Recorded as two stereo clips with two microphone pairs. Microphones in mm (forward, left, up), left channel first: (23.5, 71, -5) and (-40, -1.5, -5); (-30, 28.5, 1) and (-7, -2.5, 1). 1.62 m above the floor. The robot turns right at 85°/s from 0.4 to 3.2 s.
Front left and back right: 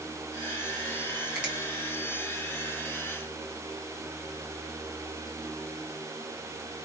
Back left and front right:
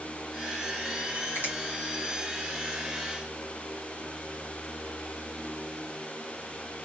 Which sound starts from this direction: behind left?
A finger snap, at 1.4 s.